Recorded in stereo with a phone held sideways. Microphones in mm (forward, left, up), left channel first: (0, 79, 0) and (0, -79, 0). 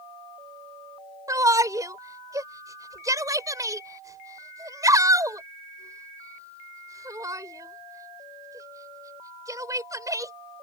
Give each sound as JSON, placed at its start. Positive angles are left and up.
{"t": 1.3, "sound": "a shout", "side_deg": -20}